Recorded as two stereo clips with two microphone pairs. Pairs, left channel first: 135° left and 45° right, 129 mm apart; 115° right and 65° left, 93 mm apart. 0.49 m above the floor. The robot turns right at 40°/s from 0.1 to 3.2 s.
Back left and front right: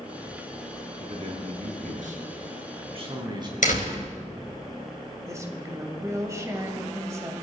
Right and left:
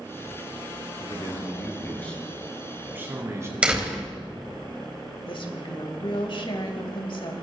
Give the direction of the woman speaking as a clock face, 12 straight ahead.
4 o'clock.